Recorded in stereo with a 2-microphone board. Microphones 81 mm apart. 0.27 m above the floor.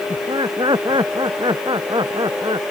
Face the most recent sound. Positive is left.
turn(degrees=-70)  # may be behind; listen again after turning